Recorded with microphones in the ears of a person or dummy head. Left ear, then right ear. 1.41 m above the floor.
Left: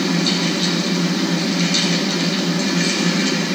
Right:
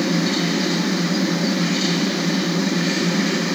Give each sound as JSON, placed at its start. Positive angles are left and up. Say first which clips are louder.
{"t": 0.0, "sound": "a fan", "louder": "left 2 dB", "side_deg": 40, "distance_m": 2.5}